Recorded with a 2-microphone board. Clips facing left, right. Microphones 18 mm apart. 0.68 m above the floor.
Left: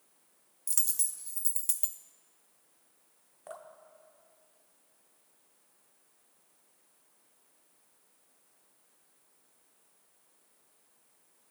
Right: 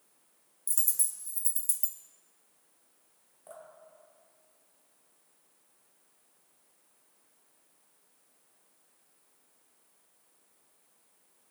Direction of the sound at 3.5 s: 50° left (ahead or behind).